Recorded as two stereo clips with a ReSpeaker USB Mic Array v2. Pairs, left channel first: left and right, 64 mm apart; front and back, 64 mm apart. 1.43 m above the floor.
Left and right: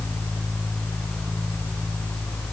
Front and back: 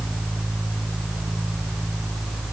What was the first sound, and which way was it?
Only background noise.